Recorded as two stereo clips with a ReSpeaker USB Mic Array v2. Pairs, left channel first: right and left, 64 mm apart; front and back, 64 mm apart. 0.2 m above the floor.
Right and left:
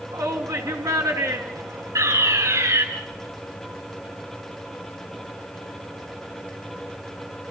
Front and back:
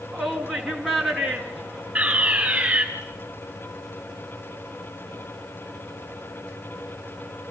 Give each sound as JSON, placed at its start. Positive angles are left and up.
{"t": 0.1, "sound": "a shout", "azimuth_deg": 90, "distance_m": 2.5}
{"t": 1.9, "sound": "a fire alarm", "azimuth_deg": 110, "distance_m": 4.5}